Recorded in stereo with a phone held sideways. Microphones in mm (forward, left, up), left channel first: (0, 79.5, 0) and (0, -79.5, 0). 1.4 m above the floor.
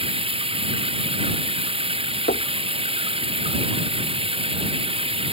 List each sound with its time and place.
0.0 s running water: 35° right (ahead or behind)
2.3 s knocking: 80° left